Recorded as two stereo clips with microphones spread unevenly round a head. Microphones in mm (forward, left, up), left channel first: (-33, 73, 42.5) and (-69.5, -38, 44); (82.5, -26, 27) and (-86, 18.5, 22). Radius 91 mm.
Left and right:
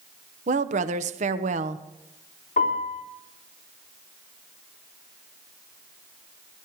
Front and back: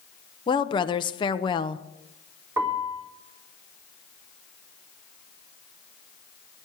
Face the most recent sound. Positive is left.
turn(degrees=90)